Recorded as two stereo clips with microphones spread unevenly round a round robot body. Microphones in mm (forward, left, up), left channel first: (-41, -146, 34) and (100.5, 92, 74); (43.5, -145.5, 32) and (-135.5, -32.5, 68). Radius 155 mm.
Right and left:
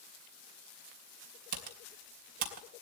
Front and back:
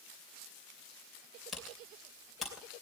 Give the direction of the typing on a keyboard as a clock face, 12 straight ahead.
10 o'clock.